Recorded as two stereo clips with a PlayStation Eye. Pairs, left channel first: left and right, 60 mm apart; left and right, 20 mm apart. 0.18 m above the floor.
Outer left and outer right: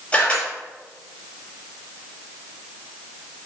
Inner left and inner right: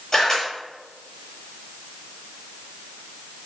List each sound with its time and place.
0.1 s a camera shutter: 20° left (ahead or behind), 5 m